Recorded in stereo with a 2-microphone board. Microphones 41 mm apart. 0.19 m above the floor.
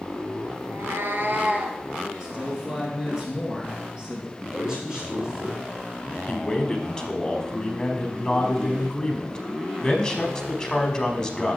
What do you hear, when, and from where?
0.6 s a cat meowing: 75° right (ahead or behind), 0.8 m; by 1.8 s 40° right (ahead or behind), 1.3 m
2.2 s a man speaking: 15° right (ahead or behind), 2.5 m
4.4 s a man speaking: 10° right (ahead or behind), 4.5 m
6.3 s a man speaking: 15° left (ahead or behind), 1.1 m